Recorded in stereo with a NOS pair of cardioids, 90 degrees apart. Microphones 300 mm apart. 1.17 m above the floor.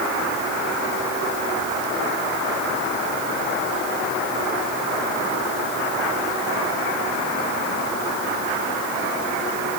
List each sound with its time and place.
Only background noise.